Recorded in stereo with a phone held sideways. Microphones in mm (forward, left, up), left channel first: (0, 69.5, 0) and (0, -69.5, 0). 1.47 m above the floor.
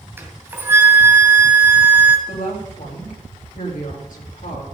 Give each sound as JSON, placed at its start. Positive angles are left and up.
{"t": 0.2, "sound": "a flute", "side_deg": -15, "distance_m": 2.0}
{"t": 2.3, "sound": "a woman speaking", "side_deg": 85, "distance_m": 3.5}